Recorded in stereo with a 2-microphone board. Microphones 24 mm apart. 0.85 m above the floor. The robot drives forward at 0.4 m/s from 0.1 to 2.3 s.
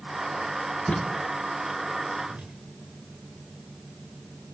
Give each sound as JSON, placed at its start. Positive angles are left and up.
{"t": 0.9, "sound": "tape being pulled", "side_deg": 65, "distance_m": 2.5}
{"t": 2.2, "sound": "a whoosh", "side_deg": -80, "distance_m": 8.0}